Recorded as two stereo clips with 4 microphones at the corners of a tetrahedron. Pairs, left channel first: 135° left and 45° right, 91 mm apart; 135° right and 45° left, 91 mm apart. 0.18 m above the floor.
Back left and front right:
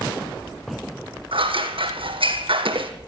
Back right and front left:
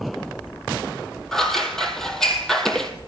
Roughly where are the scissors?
Ahead right.